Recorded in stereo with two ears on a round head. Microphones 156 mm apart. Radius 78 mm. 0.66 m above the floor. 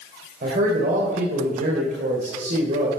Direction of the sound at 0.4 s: 50° right (ahead or behind).